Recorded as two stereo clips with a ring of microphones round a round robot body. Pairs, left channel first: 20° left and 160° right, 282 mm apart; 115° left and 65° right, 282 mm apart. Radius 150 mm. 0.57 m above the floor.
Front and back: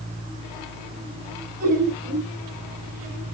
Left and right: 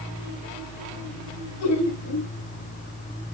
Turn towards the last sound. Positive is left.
turn(degrees=140)